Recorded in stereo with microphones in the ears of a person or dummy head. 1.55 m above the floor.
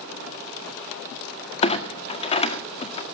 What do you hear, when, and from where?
1.6 s a clunk: 25° left (ahead or behind), 1.6 m